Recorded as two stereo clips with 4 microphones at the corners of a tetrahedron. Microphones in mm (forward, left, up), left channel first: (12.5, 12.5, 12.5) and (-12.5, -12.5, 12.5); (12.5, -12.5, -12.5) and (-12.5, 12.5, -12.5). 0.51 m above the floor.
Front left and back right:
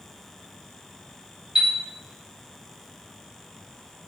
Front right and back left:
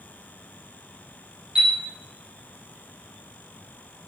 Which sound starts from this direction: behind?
A chime, at 1.6 s.